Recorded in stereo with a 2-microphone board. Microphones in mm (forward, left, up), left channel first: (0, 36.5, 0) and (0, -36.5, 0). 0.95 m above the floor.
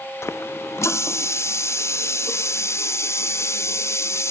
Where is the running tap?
40° left (ahead or behind), 0.6 m.